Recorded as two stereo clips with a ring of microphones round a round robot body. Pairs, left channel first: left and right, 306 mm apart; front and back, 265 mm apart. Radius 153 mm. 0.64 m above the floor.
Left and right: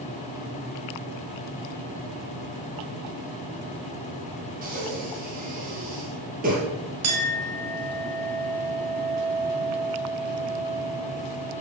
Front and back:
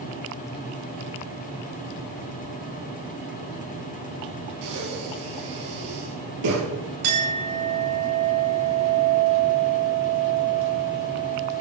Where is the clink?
130° right, 4 m.